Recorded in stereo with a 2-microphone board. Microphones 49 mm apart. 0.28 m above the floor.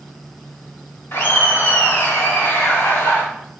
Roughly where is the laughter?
Left.